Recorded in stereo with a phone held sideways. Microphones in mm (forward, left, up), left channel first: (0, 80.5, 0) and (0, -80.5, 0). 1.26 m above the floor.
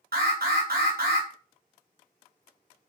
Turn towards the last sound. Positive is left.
turn(degrees=-70)  # may be behind; listen again after turning